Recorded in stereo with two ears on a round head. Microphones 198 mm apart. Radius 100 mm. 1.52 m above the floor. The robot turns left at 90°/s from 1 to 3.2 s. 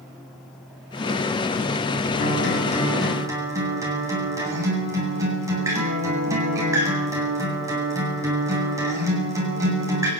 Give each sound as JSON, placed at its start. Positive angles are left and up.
{"t": 2.2, "sound": "a guitar", "azimuth_deg": 75, "distance_m": 9.0}